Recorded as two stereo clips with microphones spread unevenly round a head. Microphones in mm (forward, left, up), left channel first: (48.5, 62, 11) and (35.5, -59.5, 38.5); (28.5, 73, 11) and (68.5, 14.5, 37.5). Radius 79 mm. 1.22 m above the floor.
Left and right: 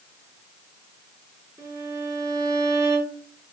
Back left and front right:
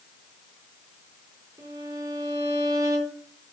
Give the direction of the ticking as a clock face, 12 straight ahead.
I don't hear ticking.